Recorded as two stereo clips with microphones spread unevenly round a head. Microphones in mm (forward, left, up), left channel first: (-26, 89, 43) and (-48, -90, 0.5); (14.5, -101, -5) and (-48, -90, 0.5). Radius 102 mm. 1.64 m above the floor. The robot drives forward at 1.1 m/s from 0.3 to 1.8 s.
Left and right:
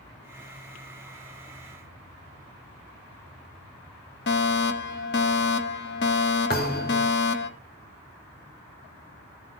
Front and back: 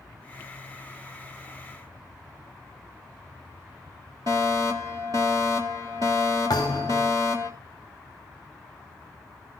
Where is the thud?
50° left, 2.5 m.